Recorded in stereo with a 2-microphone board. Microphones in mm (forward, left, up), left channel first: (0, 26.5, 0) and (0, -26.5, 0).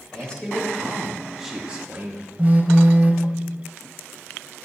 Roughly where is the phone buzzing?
Right.